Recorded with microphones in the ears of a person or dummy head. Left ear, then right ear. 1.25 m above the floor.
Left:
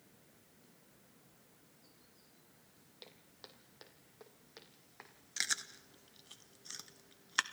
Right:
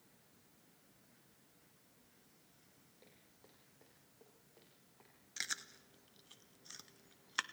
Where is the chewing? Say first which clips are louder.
Left 5 dB; 5° left (ahead or behind), 0.6 m.